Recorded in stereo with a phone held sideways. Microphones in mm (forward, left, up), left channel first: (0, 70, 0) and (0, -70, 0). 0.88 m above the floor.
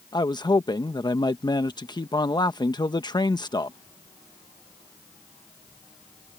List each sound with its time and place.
0.1 s a man speaking: 30° left (ahead or behind)